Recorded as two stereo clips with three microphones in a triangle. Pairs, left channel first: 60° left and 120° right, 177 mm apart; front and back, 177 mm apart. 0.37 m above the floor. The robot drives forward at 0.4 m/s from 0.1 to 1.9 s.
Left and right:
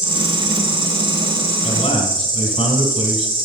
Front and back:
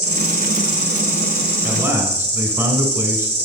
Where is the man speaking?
105° left, 1.8 m.